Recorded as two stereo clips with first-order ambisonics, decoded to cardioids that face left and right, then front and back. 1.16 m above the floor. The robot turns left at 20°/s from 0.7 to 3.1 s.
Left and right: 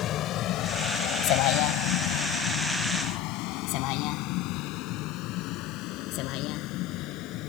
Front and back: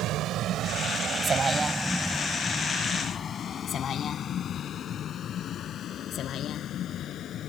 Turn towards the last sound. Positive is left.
turn(degrees=55)